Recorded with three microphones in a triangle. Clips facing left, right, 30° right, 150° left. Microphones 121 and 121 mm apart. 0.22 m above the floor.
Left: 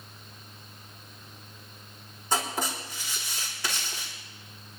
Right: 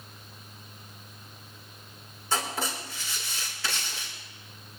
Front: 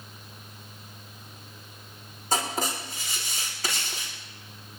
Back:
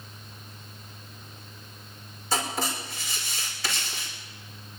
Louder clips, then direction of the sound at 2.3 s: Left 1 dB, front 1 dB; 15° left.